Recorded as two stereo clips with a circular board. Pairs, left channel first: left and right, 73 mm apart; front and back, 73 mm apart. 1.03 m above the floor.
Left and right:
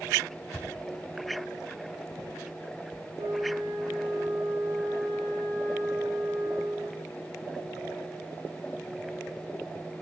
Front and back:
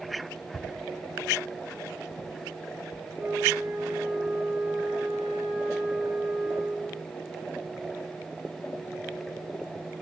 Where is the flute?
110° right, 7.5 m.